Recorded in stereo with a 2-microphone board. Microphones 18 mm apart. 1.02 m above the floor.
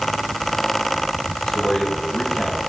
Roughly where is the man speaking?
Left.